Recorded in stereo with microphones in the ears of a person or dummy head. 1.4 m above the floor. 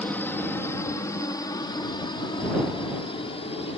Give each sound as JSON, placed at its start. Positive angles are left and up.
{"t": 0.0, "sound": "a helicopter", "side_deg": 10}